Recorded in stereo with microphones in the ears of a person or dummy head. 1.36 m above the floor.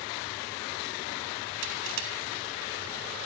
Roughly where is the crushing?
Right.